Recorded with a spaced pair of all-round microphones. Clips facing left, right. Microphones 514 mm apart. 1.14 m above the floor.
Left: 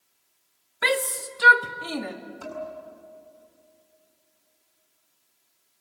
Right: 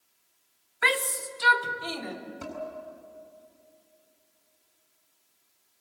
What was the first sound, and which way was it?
A shout, 50° left (ahead or behind).